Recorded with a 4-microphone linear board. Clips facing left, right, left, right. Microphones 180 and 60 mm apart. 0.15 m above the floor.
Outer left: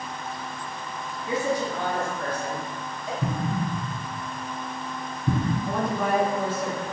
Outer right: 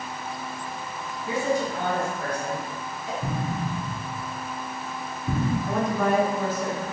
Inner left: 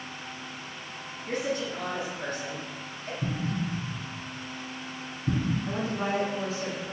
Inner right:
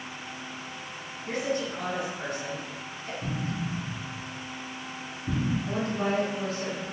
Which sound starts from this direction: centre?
A woman speaking, at 5.7 s.